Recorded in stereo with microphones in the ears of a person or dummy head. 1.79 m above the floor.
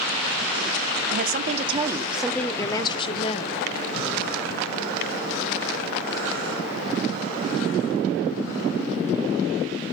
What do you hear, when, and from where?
1.1 s a woman speaking: 60° right (ahead or behind), 0.8 m; by 3.6 s 40° left (ahead or behind), 1.4 m